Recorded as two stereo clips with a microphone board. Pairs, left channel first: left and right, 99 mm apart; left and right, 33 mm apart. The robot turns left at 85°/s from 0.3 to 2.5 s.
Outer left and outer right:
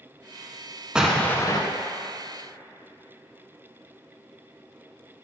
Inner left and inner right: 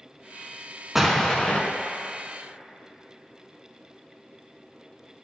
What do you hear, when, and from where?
0.9 s an explosion: 170° right, 0.6 m; by 1.6 s 135° left, 0.6 m